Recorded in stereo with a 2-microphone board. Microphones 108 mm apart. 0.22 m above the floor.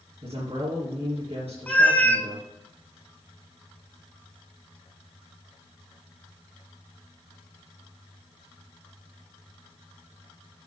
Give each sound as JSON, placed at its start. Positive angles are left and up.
{"t": 0.2, "sound": "a woman speaking", "side_deg": -65, "distance_m": 3.0}
{"t": 1.7, "sound": "a cat meowing", "side_deg": 15, "distance_m": 0.8}